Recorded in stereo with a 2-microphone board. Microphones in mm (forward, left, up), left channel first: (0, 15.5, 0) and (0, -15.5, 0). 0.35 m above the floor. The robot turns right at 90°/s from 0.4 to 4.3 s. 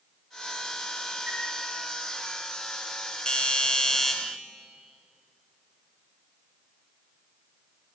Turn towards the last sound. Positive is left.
turn(degrees=180)